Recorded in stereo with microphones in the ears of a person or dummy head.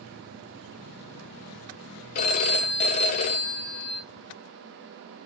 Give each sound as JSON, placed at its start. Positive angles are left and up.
{"t": 2.1, "sound": "a phone ringing", "side_deg": 40, "distance_m": 0.8}